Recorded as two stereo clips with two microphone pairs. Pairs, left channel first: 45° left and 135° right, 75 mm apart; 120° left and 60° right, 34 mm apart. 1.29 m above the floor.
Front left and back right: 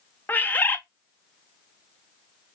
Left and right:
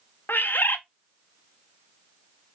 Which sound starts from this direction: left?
A bird, at 0.3 s.